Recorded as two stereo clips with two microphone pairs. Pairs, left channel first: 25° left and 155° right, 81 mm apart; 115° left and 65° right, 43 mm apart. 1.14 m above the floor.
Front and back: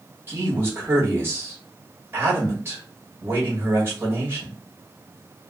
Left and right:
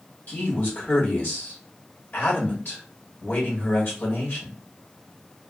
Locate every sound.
0.3 s a man speaking: 150° left, 1.8 m